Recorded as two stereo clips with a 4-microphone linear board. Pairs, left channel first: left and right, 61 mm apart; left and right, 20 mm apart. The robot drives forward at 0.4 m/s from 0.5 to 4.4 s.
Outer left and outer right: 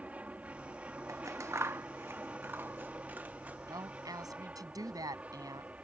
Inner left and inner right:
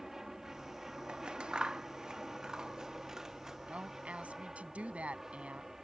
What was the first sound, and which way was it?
An aircraft, 20° right (ahead or behind).